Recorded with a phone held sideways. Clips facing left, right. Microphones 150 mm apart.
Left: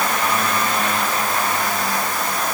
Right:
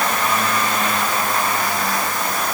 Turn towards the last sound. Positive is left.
No sound to turn to.